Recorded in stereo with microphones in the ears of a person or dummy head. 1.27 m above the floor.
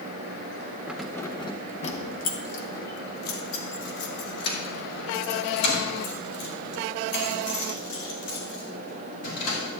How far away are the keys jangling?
About 0.6 m.